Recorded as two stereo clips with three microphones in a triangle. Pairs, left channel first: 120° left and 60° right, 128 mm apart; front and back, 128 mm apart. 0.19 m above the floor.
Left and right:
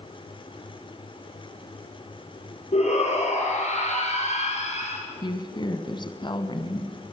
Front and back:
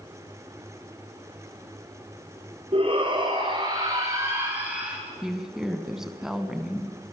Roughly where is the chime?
I don't hear a chime.